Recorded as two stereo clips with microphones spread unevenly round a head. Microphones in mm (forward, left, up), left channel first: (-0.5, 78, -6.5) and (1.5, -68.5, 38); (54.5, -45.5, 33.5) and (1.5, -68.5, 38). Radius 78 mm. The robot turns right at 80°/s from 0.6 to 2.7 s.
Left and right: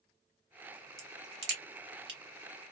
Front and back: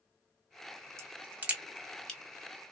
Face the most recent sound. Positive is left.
turn(degrees=-5)